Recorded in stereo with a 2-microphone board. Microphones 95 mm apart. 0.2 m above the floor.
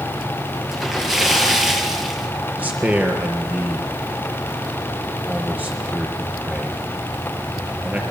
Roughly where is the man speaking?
Centre.